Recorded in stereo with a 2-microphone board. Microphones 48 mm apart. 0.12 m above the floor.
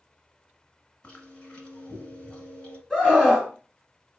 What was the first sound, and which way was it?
Chewing, 20° left (ahead or behind).